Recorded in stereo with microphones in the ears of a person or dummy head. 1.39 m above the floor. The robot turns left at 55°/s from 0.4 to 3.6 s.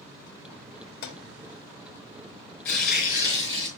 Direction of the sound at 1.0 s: 65° left (ahead or behind).